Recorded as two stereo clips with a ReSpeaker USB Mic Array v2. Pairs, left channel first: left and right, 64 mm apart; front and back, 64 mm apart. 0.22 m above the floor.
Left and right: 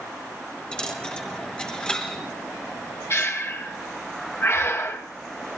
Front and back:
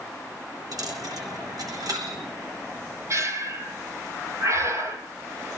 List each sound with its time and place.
0.7 s a dropped coin: 165° left, 2.5 m
3.1 s breathing: 135° left, 1.4 m